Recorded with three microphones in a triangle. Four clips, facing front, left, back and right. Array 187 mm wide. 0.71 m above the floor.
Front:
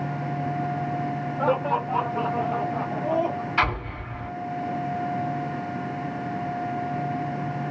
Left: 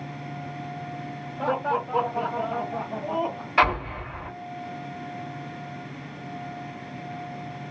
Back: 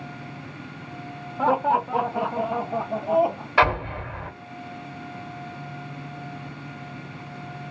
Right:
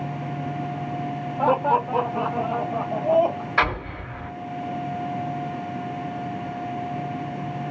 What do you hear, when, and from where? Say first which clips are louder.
1.4 s laughter: right 6 dB, back 3 dB; 125° right, 1.6 m; by 3.5 s 175° left, 2 m
3.6 s an explosion: left 3 dB, back 8 dB; 175° right, 2.5 m